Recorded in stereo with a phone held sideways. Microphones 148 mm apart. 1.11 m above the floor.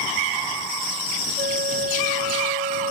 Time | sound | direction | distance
1.4 | a flute | 85° right | ?